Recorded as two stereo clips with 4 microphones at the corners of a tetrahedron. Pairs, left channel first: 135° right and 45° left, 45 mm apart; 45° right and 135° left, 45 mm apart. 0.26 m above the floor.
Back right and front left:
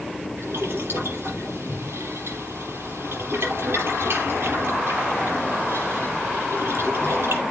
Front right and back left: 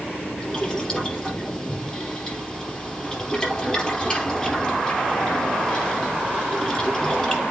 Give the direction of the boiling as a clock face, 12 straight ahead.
11 o'clock.